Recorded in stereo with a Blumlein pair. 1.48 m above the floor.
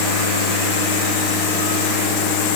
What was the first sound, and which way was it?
Only background noise.